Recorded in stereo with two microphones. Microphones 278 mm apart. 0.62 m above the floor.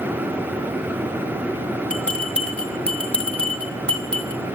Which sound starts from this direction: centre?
A bell, at 1.9 s.